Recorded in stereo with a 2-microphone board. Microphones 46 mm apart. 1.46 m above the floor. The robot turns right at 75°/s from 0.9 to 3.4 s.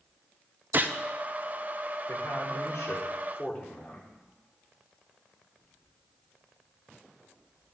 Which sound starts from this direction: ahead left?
A man speaking, at 2.1 s.